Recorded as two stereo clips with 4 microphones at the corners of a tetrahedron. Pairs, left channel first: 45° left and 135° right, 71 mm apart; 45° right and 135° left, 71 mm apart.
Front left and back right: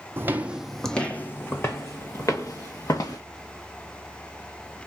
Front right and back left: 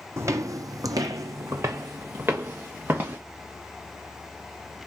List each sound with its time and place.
0.2 s footsteps: 175° left, 0.5 m; by 3.2 s 75° left, 1.7 m